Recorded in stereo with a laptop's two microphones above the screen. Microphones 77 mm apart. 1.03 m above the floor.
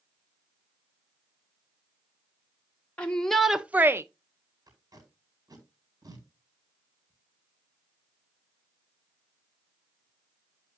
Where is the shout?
20° left (ahead or behind), 0.7 m; by 4.0 s 35° right (ahead or behind), 0.6 m.